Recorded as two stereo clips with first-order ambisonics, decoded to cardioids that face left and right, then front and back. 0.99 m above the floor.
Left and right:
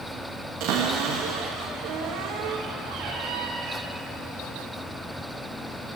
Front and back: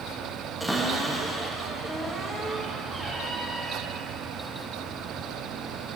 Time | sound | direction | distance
0.6 | a cupboard door | 85° right | 1.2 m